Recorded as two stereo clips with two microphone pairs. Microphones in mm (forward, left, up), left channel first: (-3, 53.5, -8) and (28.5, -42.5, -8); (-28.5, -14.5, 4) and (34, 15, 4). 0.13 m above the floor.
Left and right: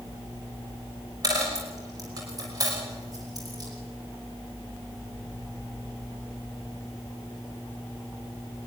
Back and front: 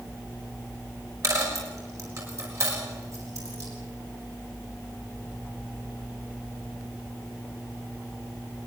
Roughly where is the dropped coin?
Ahead.